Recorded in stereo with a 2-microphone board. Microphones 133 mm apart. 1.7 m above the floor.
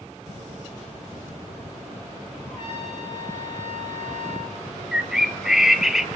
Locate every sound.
2.5 s a trumpet: 50° left (ahead or behind), 8 m
4.9 s a bird: 5° right (ahead or behind), 0.7 m